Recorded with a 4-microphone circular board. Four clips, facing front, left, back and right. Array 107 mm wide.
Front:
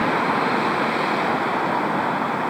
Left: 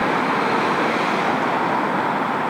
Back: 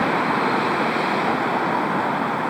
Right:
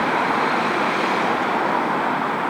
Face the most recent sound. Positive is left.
No sound to turn to.